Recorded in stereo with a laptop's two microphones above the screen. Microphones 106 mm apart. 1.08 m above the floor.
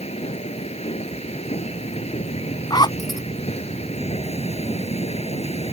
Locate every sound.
0.0 s a machine running: 75° left (ahead or behind)
2.7 s a zipper: 40° left (ahead or behind)